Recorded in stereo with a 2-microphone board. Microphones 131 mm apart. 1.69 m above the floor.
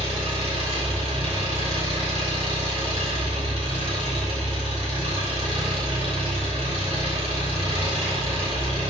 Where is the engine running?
50° right (ahead or behind), 3 m.